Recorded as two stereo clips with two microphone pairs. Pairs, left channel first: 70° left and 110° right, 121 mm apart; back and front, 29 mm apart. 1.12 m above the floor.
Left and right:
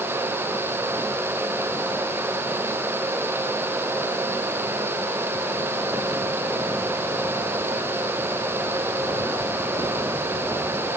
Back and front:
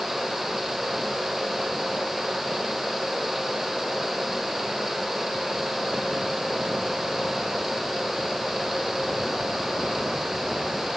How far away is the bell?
I don't hear a bell.